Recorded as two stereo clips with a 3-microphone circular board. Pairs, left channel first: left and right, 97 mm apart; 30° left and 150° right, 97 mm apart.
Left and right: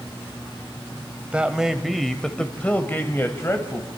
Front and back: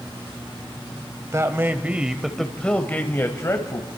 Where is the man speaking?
160° right, 1.3 m; by 3.9 s 50° left, 1.6 m.